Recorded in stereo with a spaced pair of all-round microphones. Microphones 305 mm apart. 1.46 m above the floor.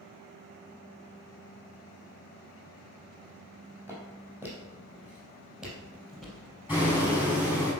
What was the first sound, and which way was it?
Footsteps, 5° right (ahead or behind).